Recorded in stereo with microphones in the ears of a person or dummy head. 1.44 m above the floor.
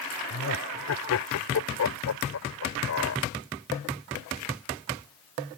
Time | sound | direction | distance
0.3 | laughter | 85° left | ?